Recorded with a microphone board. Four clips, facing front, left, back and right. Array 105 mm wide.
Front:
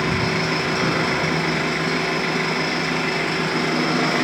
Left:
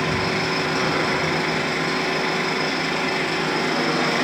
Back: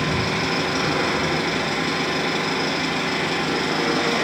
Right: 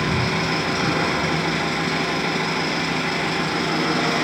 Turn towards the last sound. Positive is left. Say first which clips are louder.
# even, front 1 dB
turn(degrees=25)